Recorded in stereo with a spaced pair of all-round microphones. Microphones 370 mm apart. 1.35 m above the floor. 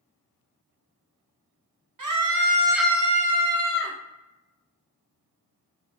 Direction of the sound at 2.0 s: 60° right (ahead or behind).